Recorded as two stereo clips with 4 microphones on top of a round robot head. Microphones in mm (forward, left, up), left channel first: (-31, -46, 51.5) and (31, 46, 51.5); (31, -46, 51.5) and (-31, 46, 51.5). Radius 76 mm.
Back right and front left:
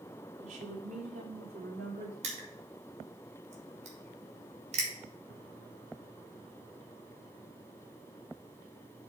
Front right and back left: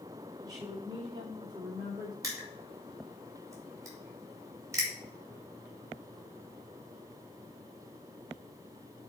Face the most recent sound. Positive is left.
turn(degrees=60)